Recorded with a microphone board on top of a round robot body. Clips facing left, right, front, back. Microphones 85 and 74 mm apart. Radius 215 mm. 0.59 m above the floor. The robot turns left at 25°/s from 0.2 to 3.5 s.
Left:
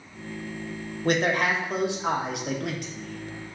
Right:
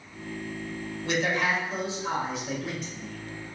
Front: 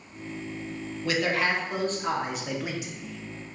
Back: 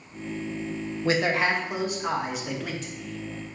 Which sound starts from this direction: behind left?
A man speaking, at 1.1 s.